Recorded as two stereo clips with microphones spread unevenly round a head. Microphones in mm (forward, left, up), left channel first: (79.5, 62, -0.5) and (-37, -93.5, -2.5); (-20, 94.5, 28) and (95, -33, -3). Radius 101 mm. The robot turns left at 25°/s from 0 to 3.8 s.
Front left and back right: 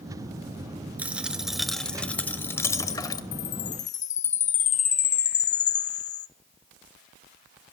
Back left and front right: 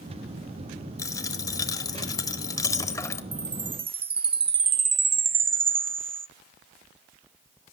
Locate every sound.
1.0 s a dropped coin: 160° left, 1.0 m; by 3.2 s 100° left, 1.0 m
3.3 s a chime: 15° left, 0.6 m; by 6.3 s 5° left, 0.6 m